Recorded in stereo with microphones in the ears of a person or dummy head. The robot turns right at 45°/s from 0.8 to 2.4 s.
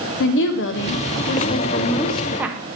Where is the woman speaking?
120° left, 0.8 m; by 2.6 s 170° right, 0.8 m.